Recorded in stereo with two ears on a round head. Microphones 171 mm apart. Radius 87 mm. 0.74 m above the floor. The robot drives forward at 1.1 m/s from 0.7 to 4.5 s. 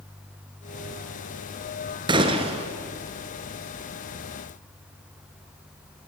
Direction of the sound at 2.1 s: 25° right (ahead or behind).